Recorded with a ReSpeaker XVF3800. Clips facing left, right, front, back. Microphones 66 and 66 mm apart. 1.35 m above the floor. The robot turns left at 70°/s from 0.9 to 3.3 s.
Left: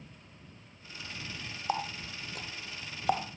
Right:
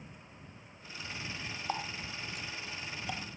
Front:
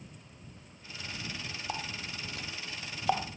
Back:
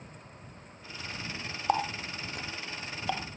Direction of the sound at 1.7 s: 160° left.